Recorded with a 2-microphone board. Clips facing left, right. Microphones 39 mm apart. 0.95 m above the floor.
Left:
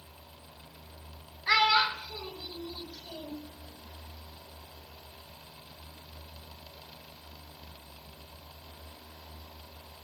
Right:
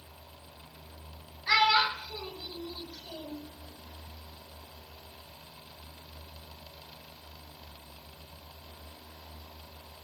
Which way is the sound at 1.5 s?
15° left (ahead or behind).